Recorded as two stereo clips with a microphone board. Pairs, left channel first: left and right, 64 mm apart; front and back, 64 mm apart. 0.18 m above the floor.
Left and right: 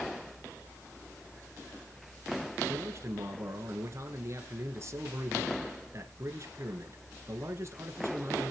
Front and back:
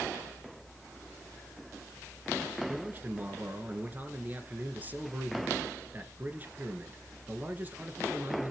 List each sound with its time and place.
2.7 s a man speaking: 120° right, 2.5 m